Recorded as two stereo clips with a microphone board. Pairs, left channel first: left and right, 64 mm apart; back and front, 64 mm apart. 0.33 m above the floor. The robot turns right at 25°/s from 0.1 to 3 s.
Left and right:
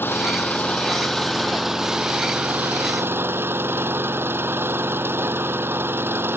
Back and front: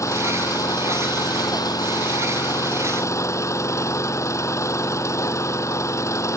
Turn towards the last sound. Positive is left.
turn(degrees=-145)